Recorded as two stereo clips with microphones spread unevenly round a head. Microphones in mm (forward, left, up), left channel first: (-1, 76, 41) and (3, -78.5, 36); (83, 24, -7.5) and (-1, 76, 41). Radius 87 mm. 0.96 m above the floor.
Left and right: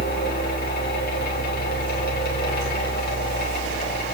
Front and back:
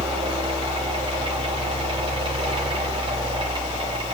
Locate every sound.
0.0 s a fan: 105° left, 4 m